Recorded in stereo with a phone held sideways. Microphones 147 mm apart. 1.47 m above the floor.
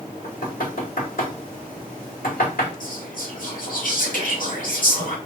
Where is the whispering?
65° left (ahead or behind), 2.5 m.